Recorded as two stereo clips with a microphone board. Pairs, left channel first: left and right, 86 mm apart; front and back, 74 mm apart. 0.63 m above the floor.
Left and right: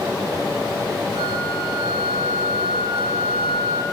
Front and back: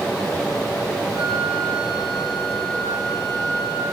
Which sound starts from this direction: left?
A flute, at 1.1 s.